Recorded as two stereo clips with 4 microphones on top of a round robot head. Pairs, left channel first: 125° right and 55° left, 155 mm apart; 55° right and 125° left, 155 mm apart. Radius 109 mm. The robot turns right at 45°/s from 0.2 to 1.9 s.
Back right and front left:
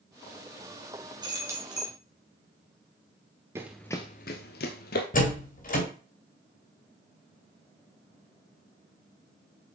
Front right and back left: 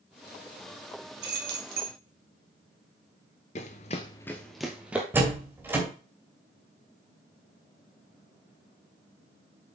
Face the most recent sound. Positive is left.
turn(degrees=-155)